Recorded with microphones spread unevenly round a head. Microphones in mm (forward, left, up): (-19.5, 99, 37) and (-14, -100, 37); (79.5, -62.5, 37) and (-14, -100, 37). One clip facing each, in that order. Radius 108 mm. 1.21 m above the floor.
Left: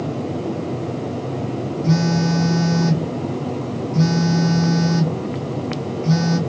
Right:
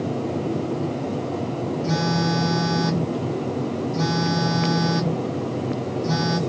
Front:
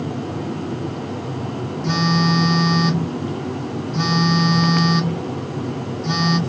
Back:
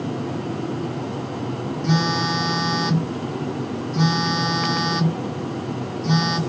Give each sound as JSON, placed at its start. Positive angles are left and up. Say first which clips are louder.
{"t": 1.8, "sound": "a phone buzzing", "louder": "left 6 dB, front 3 dB", "azimuth_deg": -10, "distance_m": 1.8}